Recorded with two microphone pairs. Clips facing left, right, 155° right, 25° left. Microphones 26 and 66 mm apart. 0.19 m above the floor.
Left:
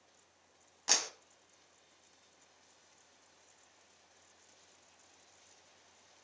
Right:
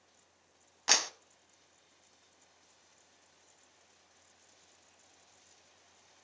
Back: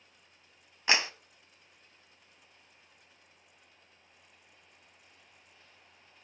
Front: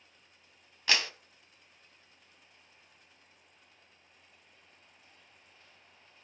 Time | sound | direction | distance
0.9 | a clap | 120° right | 0.8 m